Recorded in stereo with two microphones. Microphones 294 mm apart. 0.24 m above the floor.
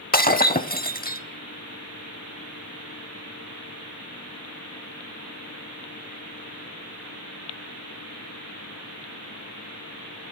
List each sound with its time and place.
0.1 s breaking glass: 30° left (ahead or behind), 0.5 m